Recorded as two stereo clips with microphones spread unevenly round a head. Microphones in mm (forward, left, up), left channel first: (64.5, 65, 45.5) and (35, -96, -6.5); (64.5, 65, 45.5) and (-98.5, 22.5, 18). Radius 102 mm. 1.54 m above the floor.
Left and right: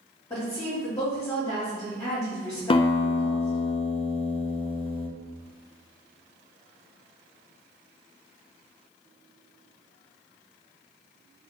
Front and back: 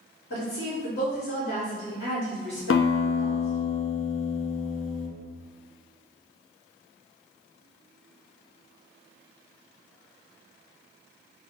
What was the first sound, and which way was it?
A woman speaking, 15° left.